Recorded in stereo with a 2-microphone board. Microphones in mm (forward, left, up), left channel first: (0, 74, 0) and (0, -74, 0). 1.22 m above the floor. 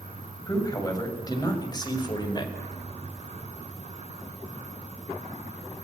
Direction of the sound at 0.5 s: 25° left (ahead or behind).